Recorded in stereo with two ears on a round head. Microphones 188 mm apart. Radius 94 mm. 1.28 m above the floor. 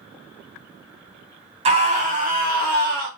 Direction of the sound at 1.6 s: 30° right (ahead or behind).